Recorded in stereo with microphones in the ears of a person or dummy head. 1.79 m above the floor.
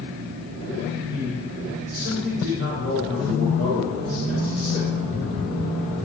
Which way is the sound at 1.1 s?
70° right (ahead or behind).